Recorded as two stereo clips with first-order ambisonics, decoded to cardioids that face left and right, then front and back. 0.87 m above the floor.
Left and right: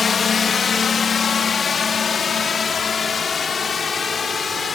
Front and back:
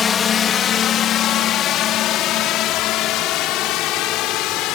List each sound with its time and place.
0.0 s a drone: 40° left; by 4.8 s 20° left